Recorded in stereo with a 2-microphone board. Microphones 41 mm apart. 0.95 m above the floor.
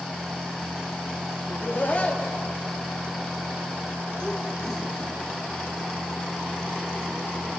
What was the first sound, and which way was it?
Laughter, 50° left (ahead or behind).